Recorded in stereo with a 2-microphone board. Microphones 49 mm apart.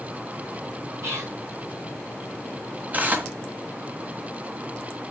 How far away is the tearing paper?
About 1.4 m.